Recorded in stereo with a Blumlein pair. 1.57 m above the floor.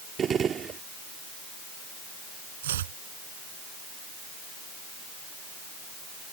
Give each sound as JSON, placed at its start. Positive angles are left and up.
{"t": 0.2, "sound": "a gunshot", "azimuth_deg": -20}
{"t": 2.6, "sound": "chopping", "azimuth_deg": -60}